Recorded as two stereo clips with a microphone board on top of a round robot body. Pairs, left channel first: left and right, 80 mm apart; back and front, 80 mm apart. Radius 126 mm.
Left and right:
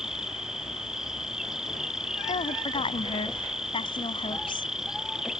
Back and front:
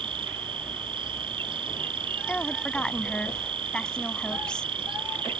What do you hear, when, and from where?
0.0 s an insect: 5° right
2.3 s a woman speaking: 100° left